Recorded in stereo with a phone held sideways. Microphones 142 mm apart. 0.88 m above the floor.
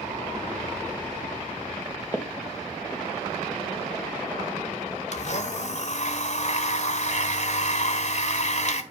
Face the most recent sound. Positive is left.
turn(degrees=55)  # may be behind; listen again after turning